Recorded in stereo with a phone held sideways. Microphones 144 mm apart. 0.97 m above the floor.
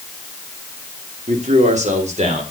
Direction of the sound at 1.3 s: 60° right (ahead or behind).